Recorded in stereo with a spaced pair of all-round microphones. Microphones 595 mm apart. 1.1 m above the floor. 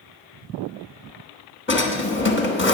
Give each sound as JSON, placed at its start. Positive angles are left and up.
{"t": 1.7, "sound": "a drawer", "side_deg": 20, "distance_m": 1.0}